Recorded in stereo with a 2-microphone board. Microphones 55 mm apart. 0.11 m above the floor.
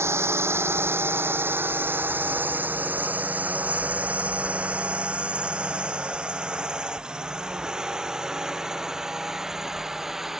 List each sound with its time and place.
0.0 s a drone: 50° right (ahead or behind); by 10.4 s 5° right (ahead or behind)